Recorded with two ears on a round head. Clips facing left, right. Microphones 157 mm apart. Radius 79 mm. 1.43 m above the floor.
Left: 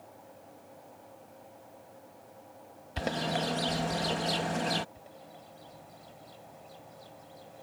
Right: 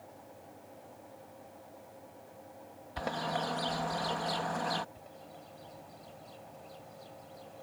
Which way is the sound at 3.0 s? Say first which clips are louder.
Left 3 dB; 30° left (ahead or behind).